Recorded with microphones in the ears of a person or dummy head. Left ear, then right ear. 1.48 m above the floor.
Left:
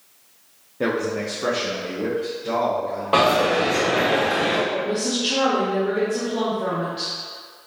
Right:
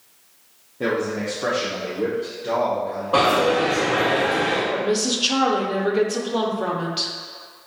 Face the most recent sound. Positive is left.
turn(degrees=-45)  # may be behind; listen again after turning